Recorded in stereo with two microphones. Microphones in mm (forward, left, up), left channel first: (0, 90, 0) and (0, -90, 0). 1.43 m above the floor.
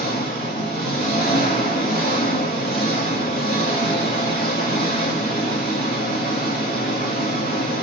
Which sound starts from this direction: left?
An engine running, at 0.0 s.